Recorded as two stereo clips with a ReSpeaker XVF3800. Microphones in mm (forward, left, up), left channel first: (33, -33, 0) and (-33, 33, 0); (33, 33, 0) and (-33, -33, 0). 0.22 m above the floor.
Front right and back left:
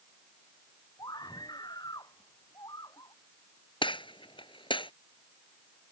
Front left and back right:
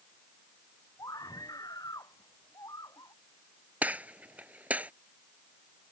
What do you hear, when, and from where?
1.0 s a scream: 5° right; by 3.1 s straight ahead
3.8 s a gunshot: 60° right